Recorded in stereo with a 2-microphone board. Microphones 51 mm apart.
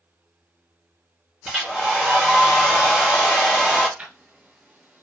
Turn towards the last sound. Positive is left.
turn(degrees=-30)  # may be behind; listen again after turning